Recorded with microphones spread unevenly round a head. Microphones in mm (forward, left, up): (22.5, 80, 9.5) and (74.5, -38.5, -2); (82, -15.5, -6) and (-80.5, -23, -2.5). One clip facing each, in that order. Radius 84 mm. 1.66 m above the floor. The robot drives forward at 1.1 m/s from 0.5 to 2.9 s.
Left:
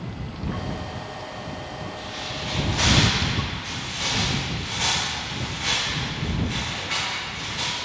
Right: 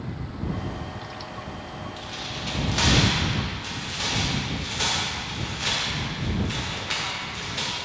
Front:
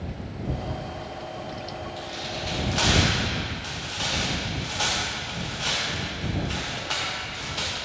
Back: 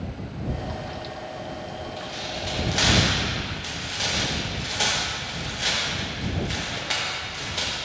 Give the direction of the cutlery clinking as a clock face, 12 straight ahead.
No cutlery clinking in this recording.